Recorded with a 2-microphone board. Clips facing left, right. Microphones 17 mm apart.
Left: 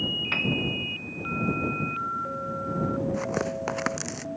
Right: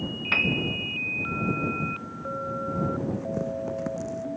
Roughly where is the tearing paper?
Left.